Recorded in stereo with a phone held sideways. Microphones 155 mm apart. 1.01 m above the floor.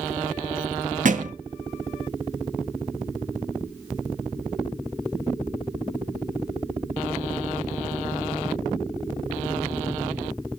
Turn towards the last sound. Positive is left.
turn(degrees=-60)  # may be behind; listen again after turning